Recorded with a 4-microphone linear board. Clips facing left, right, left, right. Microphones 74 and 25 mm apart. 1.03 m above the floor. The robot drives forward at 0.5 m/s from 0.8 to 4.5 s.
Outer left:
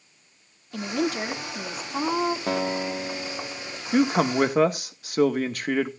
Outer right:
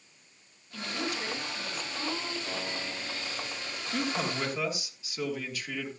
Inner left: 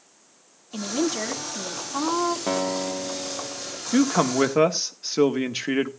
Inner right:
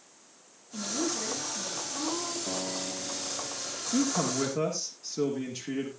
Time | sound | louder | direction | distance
0.7 | a woman speaking | outer left 9 dB, inner left 6 dB | 50° left (ahead or behind) | 2 m
2.5 | a guitar | outer left 10 dB, inner left 9 dB | 75° left (ahead or behind) | 1.1 m
3.9 | a man speaking | outer left 11 dB, inner left 8 dB | 50° left (ahead or behind) | 1.5 m